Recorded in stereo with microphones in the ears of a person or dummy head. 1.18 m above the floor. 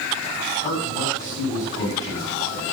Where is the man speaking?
45° left (ahead or behind), 9.5 m.